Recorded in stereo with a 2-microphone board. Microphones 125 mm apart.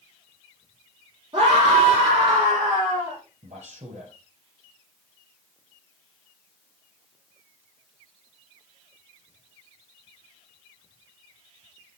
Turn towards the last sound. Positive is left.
turn(degrees=-65)  # may be behind; listen again after turning